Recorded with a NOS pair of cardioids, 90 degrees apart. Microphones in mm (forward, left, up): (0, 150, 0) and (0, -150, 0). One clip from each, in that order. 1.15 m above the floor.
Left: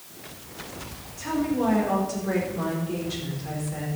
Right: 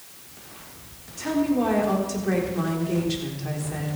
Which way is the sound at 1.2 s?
40° right.